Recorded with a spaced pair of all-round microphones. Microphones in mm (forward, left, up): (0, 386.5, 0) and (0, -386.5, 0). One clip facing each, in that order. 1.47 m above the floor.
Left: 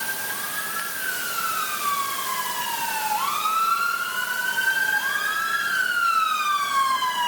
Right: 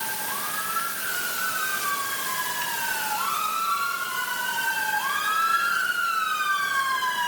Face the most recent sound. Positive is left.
No sound to turn to.